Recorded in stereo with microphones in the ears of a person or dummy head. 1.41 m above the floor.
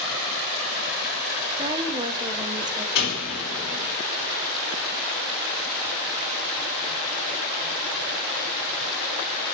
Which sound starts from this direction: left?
A door slam, at 3.0 s.